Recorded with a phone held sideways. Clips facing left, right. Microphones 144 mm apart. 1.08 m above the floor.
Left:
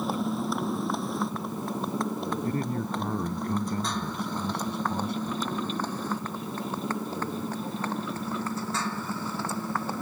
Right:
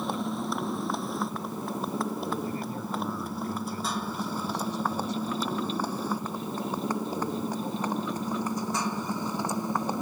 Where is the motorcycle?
Centre (ahead or behind); by 10.0 s 15° right (ahead or behind).